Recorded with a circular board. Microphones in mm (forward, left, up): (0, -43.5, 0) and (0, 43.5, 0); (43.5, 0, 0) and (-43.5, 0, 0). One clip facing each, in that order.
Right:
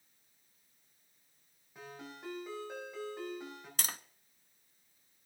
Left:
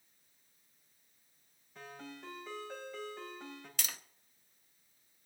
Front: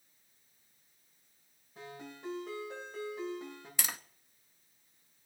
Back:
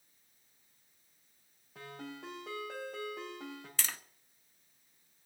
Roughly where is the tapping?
Right.